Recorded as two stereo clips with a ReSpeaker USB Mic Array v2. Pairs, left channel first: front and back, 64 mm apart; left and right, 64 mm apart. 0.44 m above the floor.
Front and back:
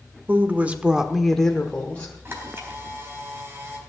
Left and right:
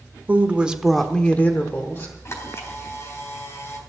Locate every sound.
0.3 s a woman speaking: 140° right, 1.3 m; by 2.1 s 60° left, 1.7 m
2.2 s a camera shutter: 130° left, 3.5 m